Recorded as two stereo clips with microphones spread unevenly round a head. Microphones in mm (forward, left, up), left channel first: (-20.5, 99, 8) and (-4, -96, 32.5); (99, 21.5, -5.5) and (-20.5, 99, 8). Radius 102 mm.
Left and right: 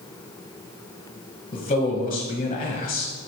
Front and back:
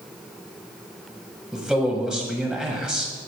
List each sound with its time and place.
1.5 s a man speaking: 55° left, 1.2 m